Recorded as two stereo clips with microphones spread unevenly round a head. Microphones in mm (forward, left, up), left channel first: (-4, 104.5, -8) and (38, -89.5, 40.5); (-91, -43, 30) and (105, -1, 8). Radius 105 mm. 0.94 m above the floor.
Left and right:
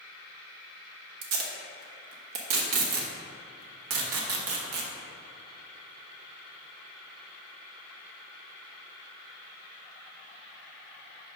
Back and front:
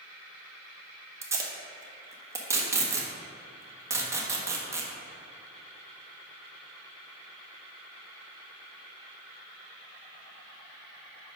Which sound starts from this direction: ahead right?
Tape being pulled, at 1.2 s.